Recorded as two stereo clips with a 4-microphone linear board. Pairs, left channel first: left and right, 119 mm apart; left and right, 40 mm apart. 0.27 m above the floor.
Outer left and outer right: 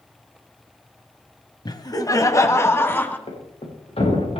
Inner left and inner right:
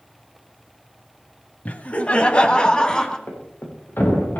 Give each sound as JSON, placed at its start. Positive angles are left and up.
{"t": 1.6, "sound": "laughter", "side_deg": 40, "distance_m": 1.3}
{"t": 3.3, "sound": "a thud", "side_deg": 65, "distance_m": 5.0}